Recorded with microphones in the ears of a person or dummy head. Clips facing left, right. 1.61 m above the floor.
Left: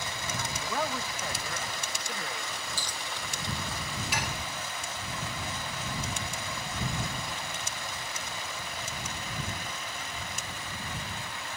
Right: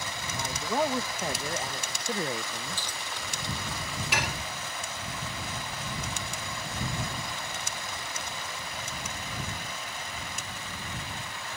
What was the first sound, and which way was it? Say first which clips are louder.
A man speaking: right 5 dB; 25° right (ahead or behind).